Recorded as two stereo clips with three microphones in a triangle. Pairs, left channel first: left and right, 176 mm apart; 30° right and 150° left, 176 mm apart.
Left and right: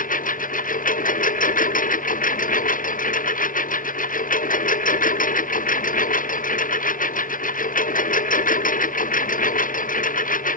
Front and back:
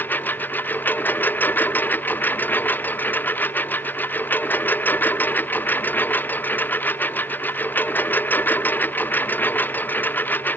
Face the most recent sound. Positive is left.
turn(degrees=50)